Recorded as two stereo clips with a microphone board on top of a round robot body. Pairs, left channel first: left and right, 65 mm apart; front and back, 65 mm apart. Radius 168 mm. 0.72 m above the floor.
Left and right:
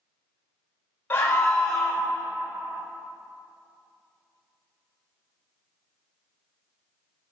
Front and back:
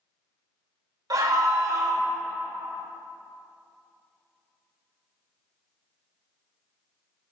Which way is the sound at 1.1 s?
150° left.